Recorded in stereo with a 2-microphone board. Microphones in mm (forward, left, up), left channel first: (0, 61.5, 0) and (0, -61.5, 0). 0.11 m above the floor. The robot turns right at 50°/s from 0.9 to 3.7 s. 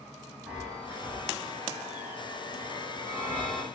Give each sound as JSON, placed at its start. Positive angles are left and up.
{"t": 0.5, "sound": "a chime", "azimuth_deg": -165, "distance_m": 4.5}